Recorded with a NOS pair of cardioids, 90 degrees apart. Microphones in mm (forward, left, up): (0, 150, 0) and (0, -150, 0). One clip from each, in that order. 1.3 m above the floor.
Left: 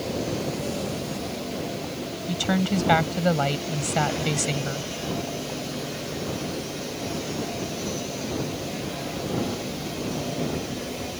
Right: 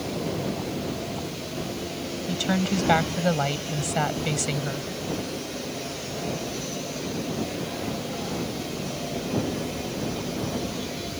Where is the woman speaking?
5° left.